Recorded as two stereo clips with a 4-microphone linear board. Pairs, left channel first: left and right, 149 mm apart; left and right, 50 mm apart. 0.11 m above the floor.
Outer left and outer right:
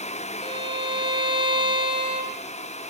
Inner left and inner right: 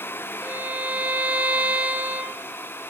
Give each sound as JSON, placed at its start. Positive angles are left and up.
{"t": 0.4, "sound": "a violin", "side_deg": -35, "distance_m": 1.6}